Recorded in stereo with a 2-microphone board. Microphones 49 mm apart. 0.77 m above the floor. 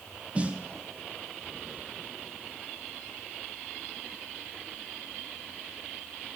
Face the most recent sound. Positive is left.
turn(degrees=-25)  # may be behind; listen again after turning